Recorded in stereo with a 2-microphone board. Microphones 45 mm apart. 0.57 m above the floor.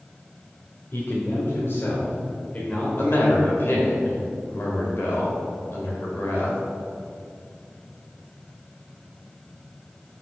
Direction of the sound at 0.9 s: 65° left (ahead or behind).